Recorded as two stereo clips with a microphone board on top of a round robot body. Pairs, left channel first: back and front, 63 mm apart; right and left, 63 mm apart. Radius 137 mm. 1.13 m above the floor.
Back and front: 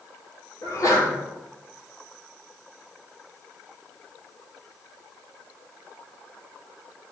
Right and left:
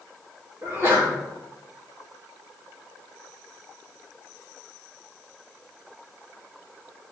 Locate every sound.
0.6 s a sneeze: 145° left, 2.5 m